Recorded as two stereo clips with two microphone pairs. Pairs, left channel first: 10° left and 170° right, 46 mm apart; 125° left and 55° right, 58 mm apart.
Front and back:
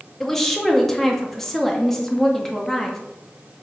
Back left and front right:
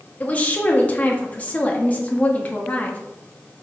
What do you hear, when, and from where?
0.2 s a woman speaking: 85° left, 0.7 m